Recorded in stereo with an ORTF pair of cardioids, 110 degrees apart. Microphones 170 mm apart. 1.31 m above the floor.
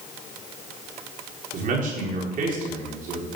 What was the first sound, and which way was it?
A man speaking, 55° right.